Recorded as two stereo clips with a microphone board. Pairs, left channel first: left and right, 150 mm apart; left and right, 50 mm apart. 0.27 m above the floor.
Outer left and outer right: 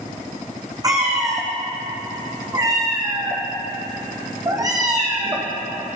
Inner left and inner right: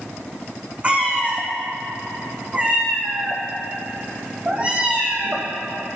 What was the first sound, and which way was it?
A cat meowing, 25° right (ahead or behind).